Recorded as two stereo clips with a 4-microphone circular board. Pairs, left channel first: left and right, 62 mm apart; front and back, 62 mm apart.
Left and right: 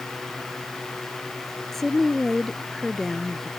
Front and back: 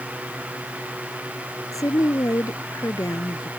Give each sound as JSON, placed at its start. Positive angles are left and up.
{"t": 1.7, "sound": "a woman speaking", "azimuth_deg": 5}